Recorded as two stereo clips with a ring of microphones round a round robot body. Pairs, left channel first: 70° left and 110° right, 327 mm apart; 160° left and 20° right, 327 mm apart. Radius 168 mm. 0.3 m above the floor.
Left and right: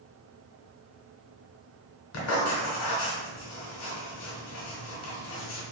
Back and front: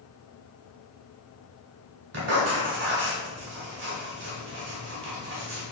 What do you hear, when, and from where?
2.1 s writing: 30° left, 1.1 m